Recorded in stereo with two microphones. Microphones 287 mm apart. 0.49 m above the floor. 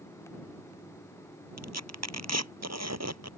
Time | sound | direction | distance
1.6 | tearing paper | 65° right (ahead or behind) | ?